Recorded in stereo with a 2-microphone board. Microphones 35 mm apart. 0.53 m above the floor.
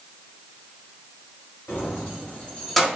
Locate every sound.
1.7 s keys jangling: 65° left (ahead or behind), 1.5 m; by 2.9 s 5° right (ahead or behind), 0.7 m